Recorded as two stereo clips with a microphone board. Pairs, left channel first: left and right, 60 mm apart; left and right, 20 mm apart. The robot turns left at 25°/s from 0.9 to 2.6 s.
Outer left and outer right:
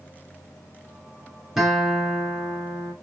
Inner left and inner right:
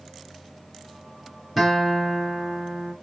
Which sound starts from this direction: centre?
A guitar, at 1.6 s.